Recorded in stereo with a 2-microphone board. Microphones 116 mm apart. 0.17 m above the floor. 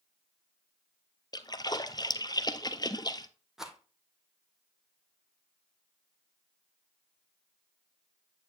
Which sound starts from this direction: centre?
A rattle, at 3.6 s.